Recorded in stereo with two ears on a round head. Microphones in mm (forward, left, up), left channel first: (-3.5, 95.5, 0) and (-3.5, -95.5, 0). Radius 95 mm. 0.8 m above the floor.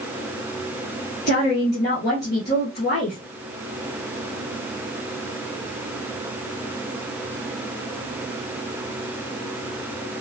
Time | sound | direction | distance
1.3 | a woman speaking | 50° left (ahead or behind) | 2 m